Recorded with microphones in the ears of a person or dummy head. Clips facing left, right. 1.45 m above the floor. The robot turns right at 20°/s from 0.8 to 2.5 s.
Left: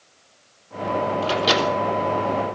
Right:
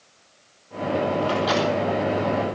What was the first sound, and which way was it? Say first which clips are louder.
A microwave: even; 25° left (ahead or behind).